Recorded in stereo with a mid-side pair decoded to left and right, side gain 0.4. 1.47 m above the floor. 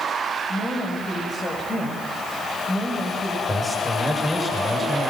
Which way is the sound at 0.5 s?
35° left.